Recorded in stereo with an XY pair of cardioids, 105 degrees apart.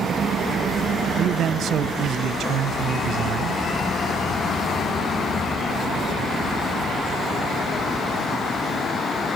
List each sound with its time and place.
1.2 s a man speaking: 65° right, 0.7 m